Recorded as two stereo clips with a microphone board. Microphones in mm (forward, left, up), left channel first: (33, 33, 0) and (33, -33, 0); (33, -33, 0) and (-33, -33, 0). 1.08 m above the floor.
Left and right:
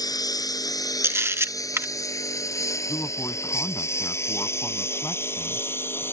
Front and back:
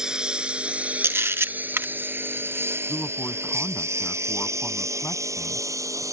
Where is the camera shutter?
130° right.